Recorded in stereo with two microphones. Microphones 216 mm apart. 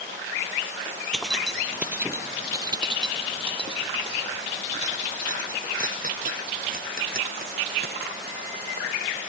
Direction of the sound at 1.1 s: 5° left (ahead or behind).